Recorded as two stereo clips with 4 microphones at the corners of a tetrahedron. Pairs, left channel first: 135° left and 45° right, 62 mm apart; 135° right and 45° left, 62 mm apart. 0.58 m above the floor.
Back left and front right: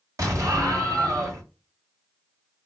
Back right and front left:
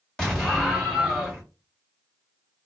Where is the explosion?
60° right, 1.2 m.